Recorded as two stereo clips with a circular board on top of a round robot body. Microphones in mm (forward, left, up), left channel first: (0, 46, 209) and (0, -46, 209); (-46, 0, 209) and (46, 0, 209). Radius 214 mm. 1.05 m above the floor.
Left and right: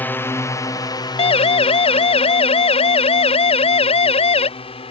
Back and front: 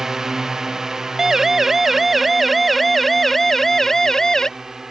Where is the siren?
85° left; by 4.5 s 95° left.